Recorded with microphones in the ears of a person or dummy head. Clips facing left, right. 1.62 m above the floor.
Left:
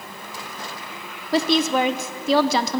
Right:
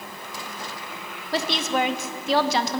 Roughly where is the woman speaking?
Left.